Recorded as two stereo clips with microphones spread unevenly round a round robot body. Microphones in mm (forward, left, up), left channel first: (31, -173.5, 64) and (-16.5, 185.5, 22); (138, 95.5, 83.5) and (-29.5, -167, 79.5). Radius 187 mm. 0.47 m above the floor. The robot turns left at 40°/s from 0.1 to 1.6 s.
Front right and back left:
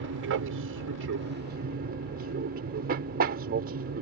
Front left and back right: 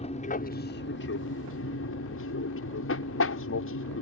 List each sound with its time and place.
0.0 s an aircraft: 120° left; by 4.0 s 60° left